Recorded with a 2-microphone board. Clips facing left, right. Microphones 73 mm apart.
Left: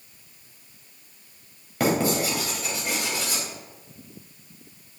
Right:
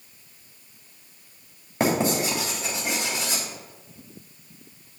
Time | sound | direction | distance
1.8 | writing | 25° right (ahead or behind) | 3 m